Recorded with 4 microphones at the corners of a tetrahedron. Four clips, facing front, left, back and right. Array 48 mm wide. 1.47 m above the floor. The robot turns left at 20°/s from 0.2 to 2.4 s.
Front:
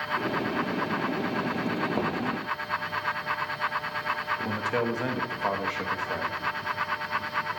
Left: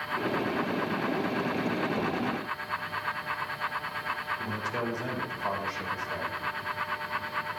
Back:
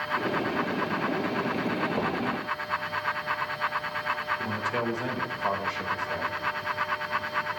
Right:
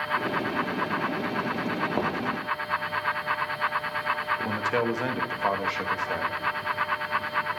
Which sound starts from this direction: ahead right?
A man speaking, at 4.4 s.